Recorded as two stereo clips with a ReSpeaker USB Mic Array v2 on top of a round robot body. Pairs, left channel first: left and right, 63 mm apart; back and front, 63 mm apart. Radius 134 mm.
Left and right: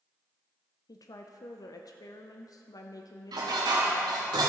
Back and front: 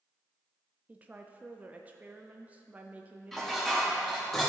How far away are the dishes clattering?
About 1.4 m.